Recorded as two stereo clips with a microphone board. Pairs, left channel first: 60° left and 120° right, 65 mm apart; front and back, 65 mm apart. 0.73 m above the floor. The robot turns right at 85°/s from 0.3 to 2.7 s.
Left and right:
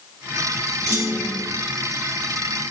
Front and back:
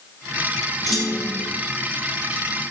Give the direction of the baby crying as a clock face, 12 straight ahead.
No baby crying in this recording.